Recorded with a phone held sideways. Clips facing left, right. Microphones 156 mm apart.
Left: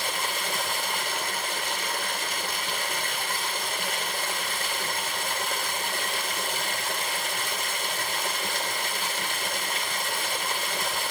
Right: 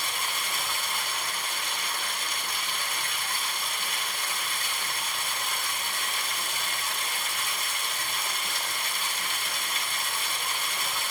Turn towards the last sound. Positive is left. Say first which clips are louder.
# left 4 dB
turn(degrees=75)  # may be behind; listen again after turning